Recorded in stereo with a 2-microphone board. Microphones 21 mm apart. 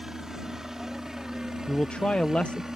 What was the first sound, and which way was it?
A helicopter, 25° right (ahead or behind).